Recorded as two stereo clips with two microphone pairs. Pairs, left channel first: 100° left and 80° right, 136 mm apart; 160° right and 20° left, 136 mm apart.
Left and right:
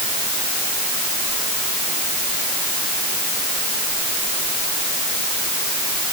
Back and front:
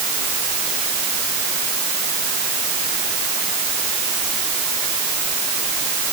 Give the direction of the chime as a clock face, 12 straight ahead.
I don't hear a chime.